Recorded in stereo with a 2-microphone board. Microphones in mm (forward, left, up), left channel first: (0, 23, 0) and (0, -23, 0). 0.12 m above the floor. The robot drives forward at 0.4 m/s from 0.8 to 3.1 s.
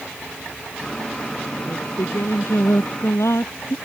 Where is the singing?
80° left.